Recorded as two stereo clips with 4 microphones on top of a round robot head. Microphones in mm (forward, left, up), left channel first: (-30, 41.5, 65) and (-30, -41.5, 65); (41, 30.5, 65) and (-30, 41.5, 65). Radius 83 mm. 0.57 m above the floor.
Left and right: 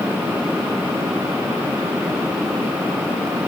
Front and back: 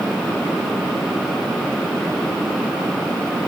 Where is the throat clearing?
I don't hear throat clearing.